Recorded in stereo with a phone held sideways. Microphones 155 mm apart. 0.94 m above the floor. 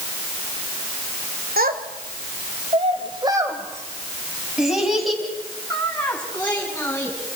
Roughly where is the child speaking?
Right.